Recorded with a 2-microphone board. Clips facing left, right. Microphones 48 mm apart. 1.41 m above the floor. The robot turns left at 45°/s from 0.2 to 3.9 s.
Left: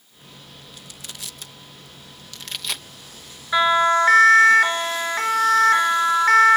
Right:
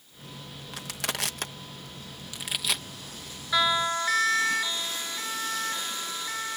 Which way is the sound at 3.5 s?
25° left (ahead or behind).